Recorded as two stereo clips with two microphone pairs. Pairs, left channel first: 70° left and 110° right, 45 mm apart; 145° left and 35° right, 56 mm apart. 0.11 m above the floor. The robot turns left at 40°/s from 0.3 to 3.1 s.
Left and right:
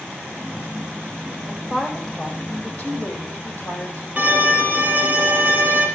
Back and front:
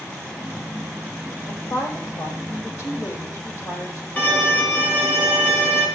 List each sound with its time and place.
1.5 s a woman speaking: straight behind, 3.5 m; by 4.1 s 115° left, 3.5 m
4.2 s a violin: 165° right, 2.5 m